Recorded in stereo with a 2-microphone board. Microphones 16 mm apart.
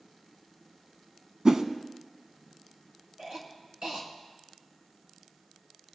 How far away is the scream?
I don't hear a scream.